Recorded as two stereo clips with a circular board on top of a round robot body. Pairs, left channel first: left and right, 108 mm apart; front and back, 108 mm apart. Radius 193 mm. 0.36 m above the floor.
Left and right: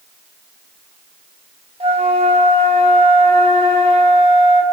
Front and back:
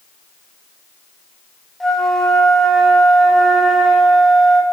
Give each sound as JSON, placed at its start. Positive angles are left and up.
{"t": 1.8, "sound": "a flute", "azimuth_deg": -85, "distance_m": 2.5}